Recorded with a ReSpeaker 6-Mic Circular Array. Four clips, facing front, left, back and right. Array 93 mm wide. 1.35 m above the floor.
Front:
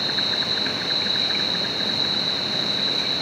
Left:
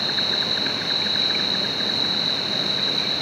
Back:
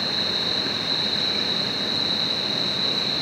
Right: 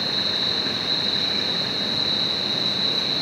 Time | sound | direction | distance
0.0 | an insect | 50° left | 1.8 m